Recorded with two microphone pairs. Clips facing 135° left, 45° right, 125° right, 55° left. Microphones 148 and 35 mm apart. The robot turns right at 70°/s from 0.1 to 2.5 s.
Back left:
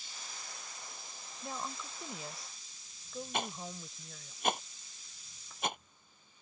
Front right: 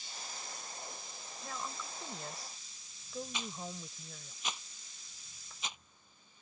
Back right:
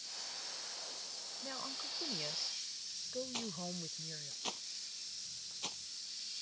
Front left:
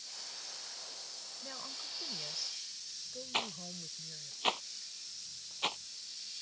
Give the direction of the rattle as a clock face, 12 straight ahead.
9 o'clock.